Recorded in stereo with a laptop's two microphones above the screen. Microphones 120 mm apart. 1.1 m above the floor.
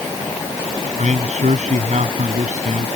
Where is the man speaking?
85° right.